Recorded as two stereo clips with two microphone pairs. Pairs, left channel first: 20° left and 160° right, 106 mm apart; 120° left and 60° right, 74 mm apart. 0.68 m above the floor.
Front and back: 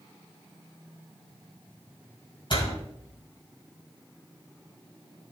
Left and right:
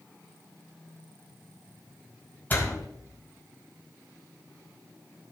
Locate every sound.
2.5 s a door slam: 55° left, 3.5 m